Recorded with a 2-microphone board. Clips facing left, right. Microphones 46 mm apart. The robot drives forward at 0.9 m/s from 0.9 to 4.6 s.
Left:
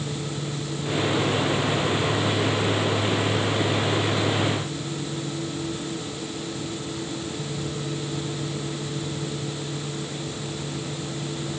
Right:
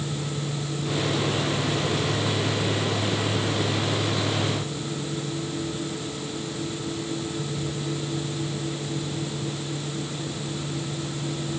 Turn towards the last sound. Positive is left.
No sound to turn to.